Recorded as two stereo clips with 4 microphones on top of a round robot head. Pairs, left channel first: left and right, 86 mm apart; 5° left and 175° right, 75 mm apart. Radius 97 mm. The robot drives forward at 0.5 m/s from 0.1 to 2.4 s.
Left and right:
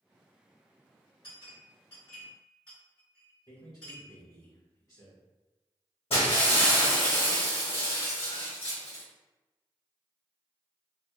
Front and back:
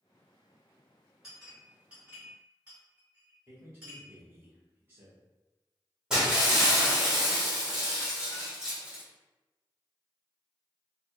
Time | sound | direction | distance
1.2 | a clink | 105° left | 2.0 m
3.5 | a man speaking | 130° left | 1.5 m
6.1 | breaking glass | 110° left | 1.7 m